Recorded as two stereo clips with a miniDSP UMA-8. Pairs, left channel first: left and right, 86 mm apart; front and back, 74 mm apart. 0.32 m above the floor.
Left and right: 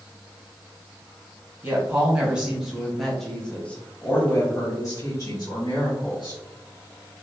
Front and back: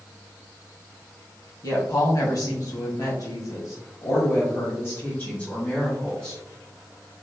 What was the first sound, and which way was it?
A woman speaking, 25° right.